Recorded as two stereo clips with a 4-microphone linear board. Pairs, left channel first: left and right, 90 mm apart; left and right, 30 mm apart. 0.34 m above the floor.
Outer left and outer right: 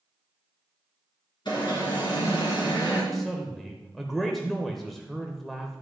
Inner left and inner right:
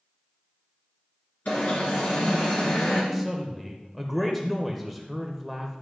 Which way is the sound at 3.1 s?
Centre (ahead or behind).